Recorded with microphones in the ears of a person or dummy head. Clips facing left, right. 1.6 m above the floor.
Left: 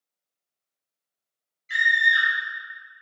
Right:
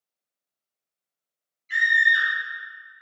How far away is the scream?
About 1.8 m.